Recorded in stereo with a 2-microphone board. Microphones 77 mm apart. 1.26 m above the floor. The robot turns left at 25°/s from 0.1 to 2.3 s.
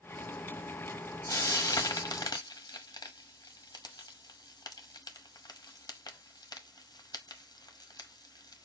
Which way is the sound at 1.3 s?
50° left (ahead or behind).